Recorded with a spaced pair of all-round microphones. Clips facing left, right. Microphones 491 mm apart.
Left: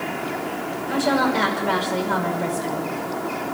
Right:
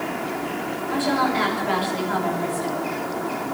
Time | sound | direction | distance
0.9 | a woman speaking | 85° left | 6 m